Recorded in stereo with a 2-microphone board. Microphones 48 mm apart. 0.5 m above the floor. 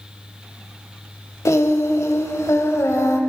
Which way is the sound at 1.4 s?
80° left.